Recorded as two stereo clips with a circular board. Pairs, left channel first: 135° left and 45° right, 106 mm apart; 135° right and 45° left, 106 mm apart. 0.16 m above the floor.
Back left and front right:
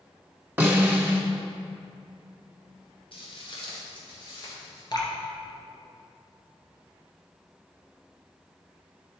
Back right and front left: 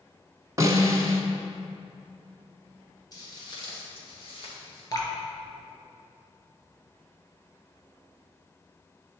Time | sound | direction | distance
0.6 | a snare drum | 15° left | 1.3 m
3.1 | footsteps | 170° left | 3 m
4.9 | dripping | 175° left | 1.8 m